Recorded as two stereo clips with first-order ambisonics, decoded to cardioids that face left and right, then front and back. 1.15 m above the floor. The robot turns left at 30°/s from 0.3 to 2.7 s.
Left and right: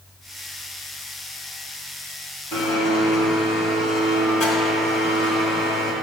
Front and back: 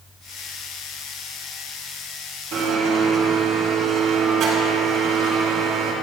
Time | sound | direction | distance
2.5 | a blender | 135° left | 1.8 m